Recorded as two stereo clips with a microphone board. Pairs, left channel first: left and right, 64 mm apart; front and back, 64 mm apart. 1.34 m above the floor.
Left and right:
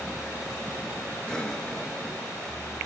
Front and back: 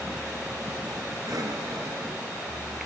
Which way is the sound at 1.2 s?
165° left.